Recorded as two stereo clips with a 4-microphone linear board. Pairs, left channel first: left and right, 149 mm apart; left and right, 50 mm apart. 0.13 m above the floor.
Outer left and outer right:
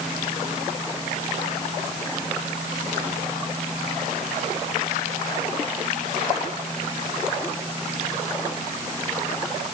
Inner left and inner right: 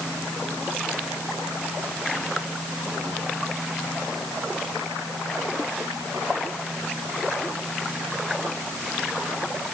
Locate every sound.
Only background noise.